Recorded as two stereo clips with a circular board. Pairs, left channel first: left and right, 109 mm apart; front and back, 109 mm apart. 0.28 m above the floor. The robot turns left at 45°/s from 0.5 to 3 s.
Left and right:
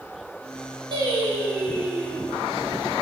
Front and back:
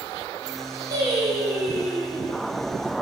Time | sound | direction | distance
0.9 | singing | 130° right | 3.5 m